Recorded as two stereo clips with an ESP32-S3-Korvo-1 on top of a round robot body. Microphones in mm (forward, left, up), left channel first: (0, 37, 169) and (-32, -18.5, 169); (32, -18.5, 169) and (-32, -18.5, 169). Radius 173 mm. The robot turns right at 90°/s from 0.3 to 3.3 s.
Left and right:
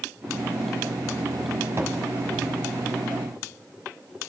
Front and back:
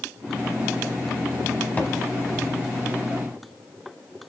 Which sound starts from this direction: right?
A thud, at 1.8 s.